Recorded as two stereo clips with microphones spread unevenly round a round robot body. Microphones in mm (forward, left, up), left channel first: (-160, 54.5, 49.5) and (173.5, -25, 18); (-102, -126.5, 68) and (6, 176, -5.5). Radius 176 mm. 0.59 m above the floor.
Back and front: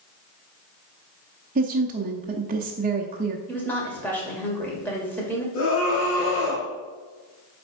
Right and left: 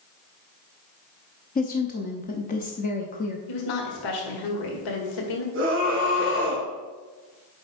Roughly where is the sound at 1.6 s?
Ahead right.